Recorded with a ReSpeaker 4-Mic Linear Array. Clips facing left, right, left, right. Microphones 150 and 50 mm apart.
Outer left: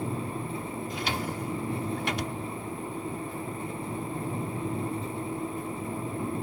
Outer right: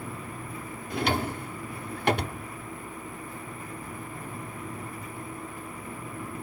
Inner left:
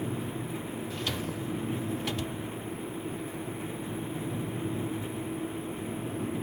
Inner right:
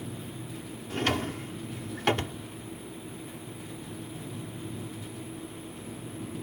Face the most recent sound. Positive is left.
turn(degrees=-55)  # may be behind; listen again after turning